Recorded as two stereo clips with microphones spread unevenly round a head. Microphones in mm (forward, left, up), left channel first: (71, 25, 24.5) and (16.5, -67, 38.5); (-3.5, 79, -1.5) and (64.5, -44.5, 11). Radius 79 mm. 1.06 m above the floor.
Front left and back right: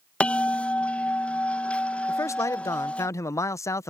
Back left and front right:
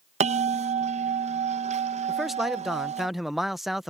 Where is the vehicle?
No vehicle in this recording.